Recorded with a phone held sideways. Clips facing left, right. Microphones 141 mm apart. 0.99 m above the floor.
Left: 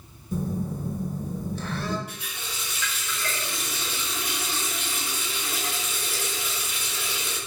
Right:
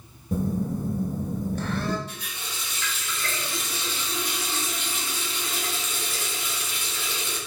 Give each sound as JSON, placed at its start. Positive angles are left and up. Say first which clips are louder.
{"t": 0.3, "sound": "a phone buzzing", "louder": "right 3 dB", "side_deg": -55, "distance_m": 0.7}
{"t": 2.1, "sound": "a running tap", "louder": "even", "side_deg": 10, "distance_m": 1.7}